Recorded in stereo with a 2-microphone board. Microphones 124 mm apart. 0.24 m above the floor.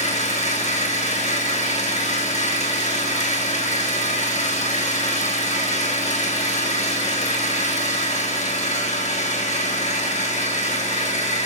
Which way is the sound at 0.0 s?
80° left.